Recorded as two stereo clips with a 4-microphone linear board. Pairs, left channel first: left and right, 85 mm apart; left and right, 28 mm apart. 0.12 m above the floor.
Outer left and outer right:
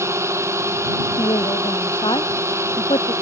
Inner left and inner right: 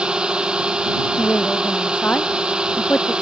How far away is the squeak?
No squeak in this recording.